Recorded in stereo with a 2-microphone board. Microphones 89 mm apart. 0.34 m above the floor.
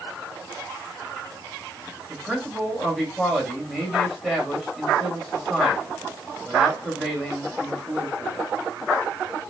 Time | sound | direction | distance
2.1 | a man speaking | 5° right (ahead or behind) | 1.7 m